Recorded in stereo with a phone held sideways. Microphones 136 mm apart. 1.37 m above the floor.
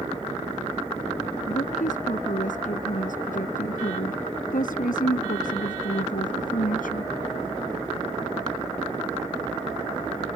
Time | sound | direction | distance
1.5 | a woman speaking | 70° left (ahead or behind) | ?